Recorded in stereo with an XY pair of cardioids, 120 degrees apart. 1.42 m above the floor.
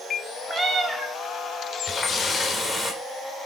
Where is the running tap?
15° left, 3.5 m.